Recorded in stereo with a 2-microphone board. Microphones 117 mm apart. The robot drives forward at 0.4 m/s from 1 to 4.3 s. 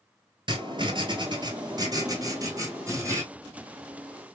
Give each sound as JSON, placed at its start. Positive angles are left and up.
{"t": 0.5, "sound": "writing", "side_deg": -40, "distance_m": 1.2}